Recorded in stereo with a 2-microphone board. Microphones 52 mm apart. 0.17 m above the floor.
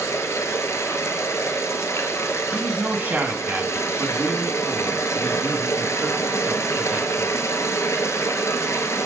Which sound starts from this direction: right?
A man speaking, at 2.5 s.